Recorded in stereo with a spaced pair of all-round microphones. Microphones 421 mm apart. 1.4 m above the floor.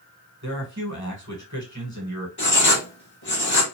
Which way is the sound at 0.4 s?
40° right (ahead or behind).